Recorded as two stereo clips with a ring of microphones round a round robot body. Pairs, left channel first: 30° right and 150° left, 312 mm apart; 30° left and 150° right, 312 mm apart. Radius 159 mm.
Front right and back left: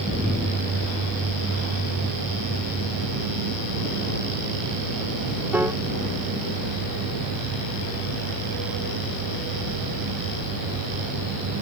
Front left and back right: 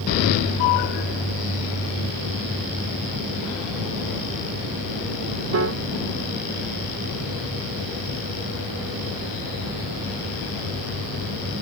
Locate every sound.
5.5 s a piano: 130° right